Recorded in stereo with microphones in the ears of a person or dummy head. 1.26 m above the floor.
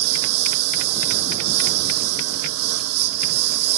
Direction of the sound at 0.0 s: 85° right.